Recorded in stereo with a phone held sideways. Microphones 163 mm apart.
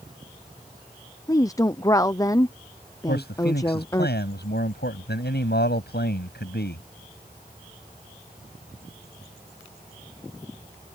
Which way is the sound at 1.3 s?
20° left (ahead or behind).